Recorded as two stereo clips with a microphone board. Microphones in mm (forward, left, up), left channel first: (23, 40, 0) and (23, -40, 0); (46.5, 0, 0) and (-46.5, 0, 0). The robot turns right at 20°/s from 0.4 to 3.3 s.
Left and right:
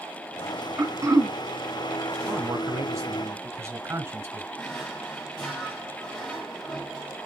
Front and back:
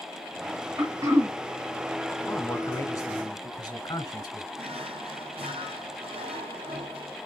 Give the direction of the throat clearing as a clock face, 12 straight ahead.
5 o'clock.